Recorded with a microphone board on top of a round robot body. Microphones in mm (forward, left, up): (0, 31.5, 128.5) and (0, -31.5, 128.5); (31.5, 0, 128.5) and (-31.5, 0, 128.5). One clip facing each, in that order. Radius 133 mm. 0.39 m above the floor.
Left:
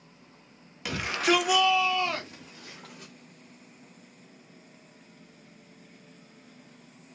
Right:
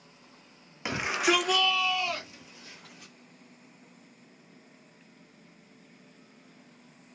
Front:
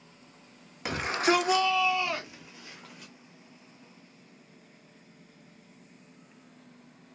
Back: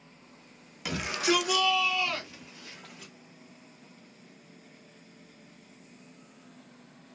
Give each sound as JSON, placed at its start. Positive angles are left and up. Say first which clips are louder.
{"t": 0.8, "sound": "a shout", "louder": "left 1 dB, front 2 dB", "azimuth_deg": -35, "distance_m": 1.1}